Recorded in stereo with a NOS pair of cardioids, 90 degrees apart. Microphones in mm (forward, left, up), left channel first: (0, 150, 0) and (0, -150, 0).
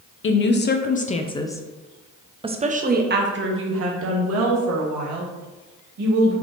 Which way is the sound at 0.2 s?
40° left.